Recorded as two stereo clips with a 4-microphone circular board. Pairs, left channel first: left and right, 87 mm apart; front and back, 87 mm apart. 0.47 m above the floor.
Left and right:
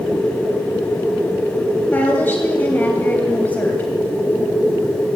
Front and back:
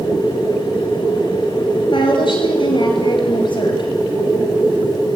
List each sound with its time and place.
1.9 s a woman speaking: 20° left, 2.5 m